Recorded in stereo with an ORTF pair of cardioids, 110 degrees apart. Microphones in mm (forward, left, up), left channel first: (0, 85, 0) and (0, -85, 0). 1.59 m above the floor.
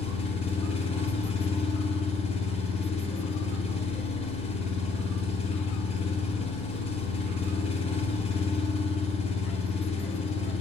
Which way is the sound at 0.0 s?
40° left.